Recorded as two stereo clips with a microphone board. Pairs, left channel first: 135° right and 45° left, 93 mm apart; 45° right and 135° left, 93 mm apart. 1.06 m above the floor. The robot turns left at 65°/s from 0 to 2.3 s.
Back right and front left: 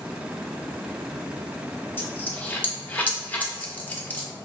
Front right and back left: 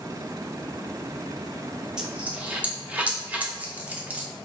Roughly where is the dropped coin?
Behind right.